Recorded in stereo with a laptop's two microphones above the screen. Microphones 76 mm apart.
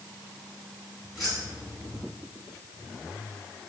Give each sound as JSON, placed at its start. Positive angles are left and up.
{"t": 1.1, "sound": "keys jangling", "side_deg": -5, "distance_m": 4.5}